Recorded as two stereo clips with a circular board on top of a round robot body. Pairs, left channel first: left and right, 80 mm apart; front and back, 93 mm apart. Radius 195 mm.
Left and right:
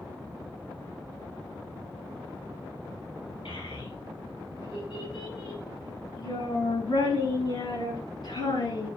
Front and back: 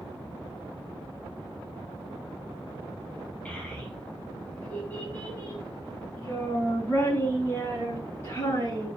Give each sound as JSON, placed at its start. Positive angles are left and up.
{"t": 3.5, "sound": "a child speaking", "azimuth_deg": 75, "distance_m": 5.0}